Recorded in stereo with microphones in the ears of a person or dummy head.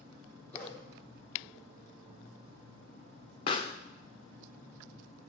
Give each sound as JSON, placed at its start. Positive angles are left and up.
{"t": 0.5, "sound": "a dog barking", "side_deg": 5, "distance_m": 1.1}
{"t": 3.5, "sound": "a pop", "side_deg": 20, "distance_m": 0.5}